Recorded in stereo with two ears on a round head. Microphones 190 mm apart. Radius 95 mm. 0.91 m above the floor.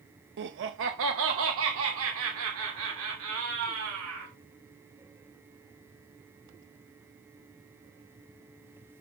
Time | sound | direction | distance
0.4 | laughter | 55° right (ahead or behind) | 0.6 m